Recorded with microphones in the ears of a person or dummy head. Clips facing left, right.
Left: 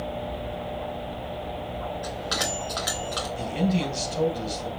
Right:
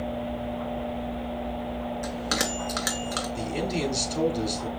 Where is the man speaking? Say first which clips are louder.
Left 4 dB; 80° right, 2.5 m.